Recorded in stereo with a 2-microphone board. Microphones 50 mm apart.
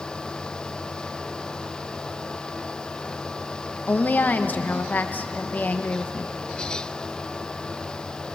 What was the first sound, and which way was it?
A woman speaking, 40° left (ahead or behind).